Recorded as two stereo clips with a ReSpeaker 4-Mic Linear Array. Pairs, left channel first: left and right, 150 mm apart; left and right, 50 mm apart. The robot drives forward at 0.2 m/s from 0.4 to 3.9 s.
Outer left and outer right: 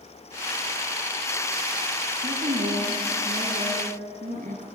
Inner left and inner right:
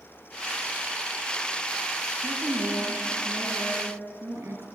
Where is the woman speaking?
60° right (ahead or behind), 4 m; by 4.7 s 65° right (ahead or behind), 4 m.